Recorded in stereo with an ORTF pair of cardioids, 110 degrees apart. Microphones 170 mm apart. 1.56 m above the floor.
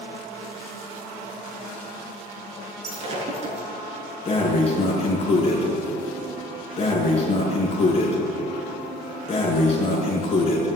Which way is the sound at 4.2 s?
35° left.